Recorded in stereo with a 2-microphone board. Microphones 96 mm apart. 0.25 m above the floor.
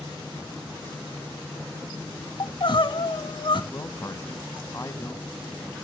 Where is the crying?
60° left (ahead or behind), 1.0 m.